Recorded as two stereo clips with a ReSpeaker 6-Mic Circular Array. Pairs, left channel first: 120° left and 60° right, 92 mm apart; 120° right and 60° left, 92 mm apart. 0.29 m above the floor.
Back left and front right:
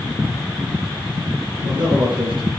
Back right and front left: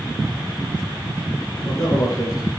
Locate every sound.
1.6 s a man speaking: 75° right, 6 m